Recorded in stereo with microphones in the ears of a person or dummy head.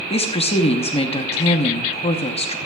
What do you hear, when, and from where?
0.1 s a woman speaking: 30° left (ahead or behind), 0.8 m